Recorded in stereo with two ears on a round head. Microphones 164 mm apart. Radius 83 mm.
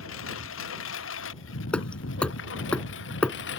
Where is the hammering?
5° left (ahead or behind).